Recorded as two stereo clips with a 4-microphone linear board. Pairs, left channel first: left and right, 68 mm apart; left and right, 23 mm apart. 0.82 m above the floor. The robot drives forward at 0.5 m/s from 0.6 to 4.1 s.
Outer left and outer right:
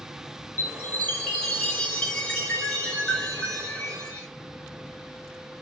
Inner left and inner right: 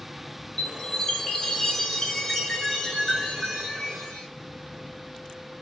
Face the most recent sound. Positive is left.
turn(degrees=10)  # may be behind; listen again after turning